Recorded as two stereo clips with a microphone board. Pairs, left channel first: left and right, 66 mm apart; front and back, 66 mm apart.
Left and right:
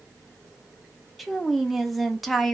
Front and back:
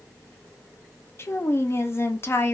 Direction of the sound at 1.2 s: Straight ahead.